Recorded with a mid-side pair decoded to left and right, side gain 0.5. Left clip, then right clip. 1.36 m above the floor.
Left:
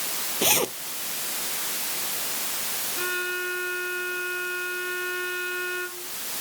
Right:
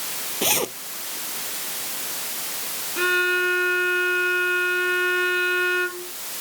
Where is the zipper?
Straight ahead.